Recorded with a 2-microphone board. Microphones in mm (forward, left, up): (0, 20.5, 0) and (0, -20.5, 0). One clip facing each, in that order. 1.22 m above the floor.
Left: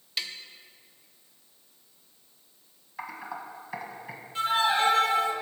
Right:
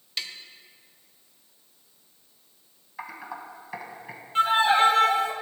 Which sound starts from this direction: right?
A violin, at 4.3 s.